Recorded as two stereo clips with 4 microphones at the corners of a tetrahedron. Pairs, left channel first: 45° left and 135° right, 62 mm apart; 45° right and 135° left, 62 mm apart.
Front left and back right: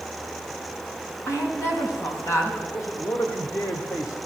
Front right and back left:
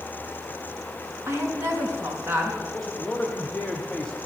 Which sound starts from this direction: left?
A woman speaking, at 1.3 s.